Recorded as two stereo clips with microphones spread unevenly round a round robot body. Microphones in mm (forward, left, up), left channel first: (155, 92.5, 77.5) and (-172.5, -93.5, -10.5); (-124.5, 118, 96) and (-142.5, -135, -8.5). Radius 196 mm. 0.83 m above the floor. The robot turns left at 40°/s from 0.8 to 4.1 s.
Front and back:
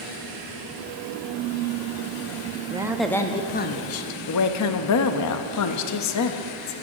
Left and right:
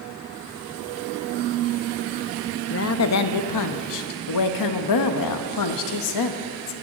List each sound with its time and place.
2.7 s a woman speaking: 135° left, 0.8 m; by 6.7 s 80° left, 0.8 m